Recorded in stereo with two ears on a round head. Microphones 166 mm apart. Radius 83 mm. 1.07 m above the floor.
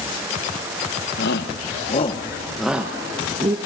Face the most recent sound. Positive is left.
turn(degrees=-25)  # may be behind; listen again after turning